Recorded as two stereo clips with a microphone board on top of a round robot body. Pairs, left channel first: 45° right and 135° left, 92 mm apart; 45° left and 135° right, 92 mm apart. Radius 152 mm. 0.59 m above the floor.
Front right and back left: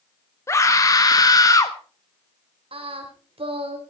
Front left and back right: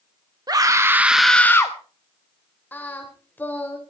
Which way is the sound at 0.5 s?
100° right.